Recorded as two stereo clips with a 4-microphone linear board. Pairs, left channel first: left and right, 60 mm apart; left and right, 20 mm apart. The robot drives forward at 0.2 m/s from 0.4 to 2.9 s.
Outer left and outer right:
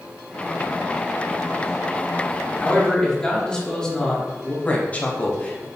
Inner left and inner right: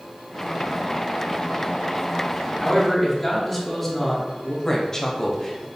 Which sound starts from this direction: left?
A woman speaking, at 4.7 s.